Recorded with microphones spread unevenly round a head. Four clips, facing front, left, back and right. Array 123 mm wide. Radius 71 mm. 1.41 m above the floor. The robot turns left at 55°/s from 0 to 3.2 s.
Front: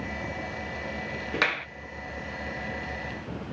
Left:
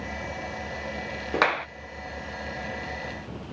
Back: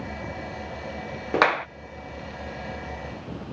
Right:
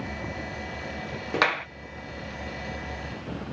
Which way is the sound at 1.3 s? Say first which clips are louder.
Left 1 dB, back 9 dB; 170° left.